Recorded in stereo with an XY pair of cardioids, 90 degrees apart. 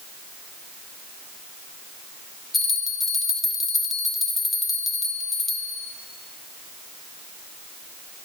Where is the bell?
30° left, 0.9 m.